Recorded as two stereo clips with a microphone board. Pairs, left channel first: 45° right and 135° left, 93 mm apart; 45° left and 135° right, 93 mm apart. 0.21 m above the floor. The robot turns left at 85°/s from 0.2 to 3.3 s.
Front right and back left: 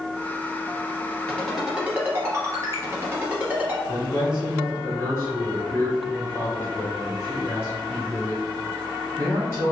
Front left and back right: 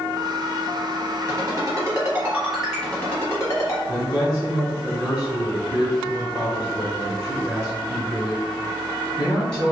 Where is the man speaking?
25° right, 1.4 m.